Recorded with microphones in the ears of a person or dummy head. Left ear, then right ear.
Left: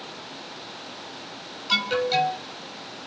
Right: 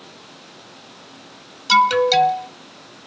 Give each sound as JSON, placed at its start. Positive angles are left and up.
{"t": 1.7, "sound": "an alarm", "side_deg": -40, "distance_m": 0.7}